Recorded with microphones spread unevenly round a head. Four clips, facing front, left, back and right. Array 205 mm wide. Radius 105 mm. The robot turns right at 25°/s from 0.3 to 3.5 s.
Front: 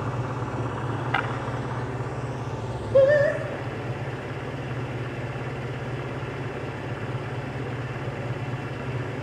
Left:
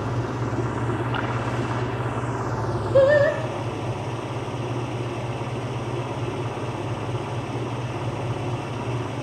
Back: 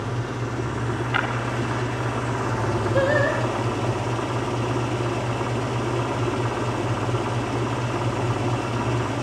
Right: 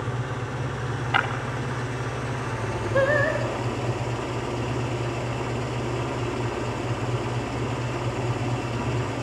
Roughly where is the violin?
I don't hear a violin.